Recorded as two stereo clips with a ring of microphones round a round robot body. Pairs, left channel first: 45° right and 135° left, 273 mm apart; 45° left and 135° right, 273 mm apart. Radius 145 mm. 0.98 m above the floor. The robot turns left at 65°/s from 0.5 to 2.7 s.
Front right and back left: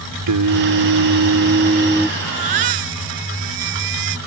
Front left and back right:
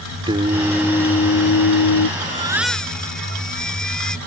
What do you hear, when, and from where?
0.3 s singing: 150° left; by 2.1 s 50° left
2.2 s a baby crying: 165° left; by 4.2 s 130° left